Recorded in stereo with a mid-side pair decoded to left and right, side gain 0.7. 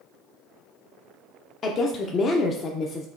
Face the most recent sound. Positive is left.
turn(degrees=40)